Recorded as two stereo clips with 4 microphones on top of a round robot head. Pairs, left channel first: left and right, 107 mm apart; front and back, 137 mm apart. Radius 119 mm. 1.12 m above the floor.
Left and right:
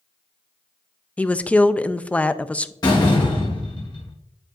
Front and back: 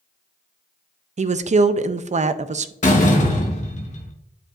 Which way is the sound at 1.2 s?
165° left.